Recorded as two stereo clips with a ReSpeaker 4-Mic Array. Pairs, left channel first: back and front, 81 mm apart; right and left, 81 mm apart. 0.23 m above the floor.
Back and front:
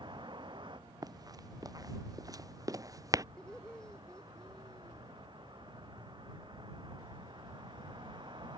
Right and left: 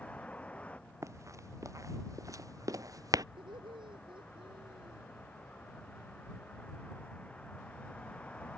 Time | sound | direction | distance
0.0 | a vehicle | 15° right | ?
1.0 | running footsteps | 40° left | ?
3.4 | laughter | 100° left | ?